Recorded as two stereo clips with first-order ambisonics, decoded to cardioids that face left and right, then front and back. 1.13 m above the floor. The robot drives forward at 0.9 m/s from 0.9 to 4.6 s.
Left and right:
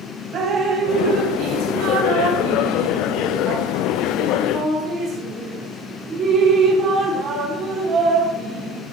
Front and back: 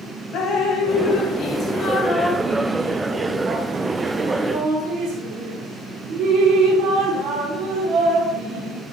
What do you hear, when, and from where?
0.3 s dripping: 45° right, 2 m; by 8.8 s 145° right, 2.5 m